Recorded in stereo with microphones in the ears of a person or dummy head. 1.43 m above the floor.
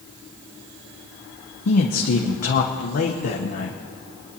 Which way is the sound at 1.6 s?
55° left (ahead or behind).